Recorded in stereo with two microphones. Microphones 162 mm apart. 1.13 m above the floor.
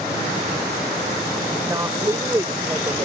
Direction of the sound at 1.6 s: 20° right (ahead or behind).